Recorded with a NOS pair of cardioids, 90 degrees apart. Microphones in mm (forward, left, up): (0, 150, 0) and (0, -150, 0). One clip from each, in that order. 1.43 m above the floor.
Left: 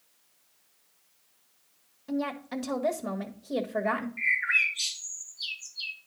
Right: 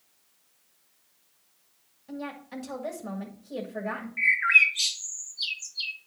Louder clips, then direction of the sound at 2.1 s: Left 5 dB; 50° left.